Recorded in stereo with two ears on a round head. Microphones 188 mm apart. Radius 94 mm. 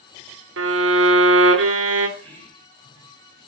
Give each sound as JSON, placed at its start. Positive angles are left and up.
{"t": 0.6, "sound": "a violin", "side_deg": -60, "distance_m": 2.0}
{"t": 2.2, "sound": "whispering", "side_deg": 10, "distance_m": 5.0}